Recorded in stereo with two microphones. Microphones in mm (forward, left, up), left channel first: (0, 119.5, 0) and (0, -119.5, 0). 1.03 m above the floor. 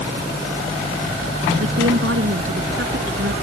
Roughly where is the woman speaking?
Right.